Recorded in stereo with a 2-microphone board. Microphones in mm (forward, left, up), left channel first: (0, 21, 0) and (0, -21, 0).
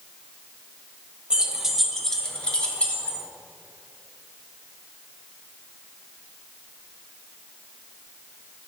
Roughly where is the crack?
No crack in this recording.